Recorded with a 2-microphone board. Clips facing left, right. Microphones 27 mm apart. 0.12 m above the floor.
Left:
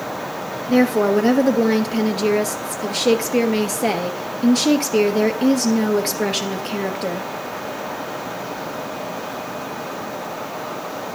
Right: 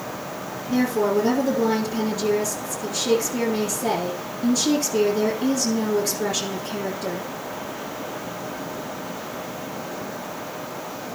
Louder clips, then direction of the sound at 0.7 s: Left 5 dB; 50° left (ahead or behind).